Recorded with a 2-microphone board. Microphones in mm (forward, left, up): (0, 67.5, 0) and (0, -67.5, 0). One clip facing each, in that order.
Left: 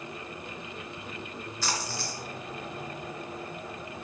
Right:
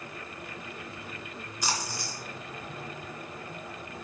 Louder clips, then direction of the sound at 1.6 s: Even; 15° right (ahead or behind).